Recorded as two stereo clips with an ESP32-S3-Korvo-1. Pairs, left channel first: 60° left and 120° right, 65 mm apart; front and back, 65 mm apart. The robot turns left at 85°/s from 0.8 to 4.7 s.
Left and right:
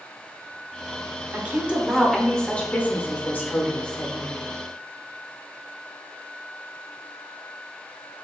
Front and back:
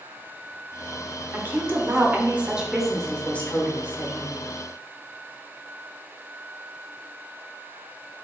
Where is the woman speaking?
140° right, 0.8 m; by 4.4 s 40° right, 0.8 m.